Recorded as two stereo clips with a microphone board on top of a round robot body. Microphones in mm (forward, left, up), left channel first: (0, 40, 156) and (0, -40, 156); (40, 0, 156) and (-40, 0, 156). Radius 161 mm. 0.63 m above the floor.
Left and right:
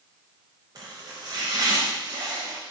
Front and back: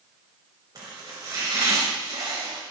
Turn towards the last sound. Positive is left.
turn(degrees=-135)